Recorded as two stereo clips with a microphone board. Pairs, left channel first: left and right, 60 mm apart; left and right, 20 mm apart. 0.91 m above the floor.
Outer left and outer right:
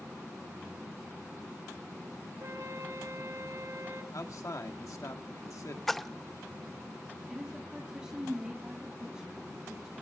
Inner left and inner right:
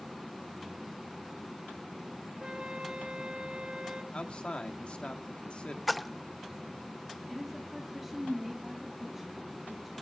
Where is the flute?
70° right (ahead or behind), 6.5 m.